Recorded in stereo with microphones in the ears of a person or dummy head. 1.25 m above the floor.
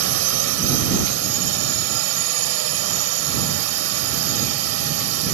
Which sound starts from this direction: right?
A drone, at 0.0 s.